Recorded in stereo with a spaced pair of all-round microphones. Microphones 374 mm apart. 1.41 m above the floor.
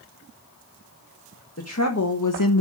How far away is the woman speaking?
About 1.6 m.